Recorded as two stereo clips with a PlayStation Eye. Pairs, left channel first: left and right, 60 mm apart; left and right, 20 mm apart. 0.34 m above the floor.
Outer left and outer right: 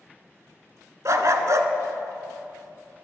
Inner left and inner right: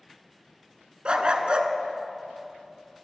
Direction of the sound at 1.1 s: 60° right (ahead or behind).